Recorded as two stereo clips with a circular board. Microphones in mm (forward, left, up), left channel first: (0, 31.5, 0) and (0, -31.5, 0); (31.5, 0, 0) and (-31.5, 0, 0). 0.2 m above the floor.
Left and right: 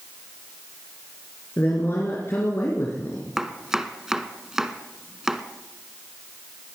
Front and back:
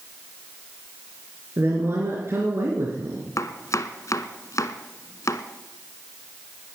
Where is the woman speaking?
135° left, 3 m.